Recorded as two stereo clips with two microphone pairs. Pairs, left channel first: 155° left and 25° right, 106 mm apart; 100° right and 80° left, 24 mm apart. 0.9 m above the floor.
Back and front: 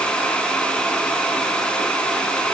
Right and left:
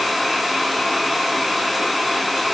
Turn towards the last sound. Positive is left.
No sound to turn to.